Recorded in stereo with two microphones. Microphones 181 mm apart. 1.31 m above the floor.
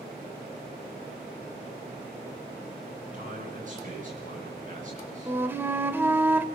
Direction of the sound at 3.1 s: 50° right (ahead or behind).